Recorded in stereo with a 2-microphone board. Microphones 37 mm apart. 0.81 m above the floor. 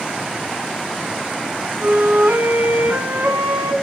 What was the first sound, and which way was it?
A flute, 85° right.